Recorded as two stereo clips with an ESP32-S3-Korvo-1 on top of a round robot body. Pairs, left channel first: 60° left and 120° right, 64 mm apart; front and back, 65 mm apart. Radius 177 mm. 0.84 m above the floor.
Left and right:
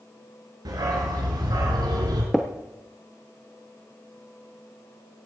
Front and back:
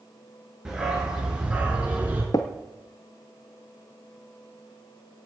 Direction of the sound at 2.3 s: 30° right.